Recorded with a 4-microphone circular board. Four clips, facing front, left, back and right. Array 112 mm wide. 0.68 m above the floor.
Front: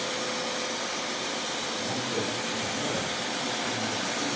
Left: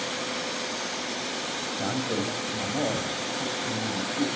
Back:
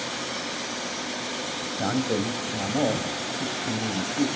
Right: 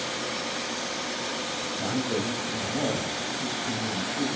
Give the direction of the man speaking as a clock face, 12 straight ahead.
6 o'clock.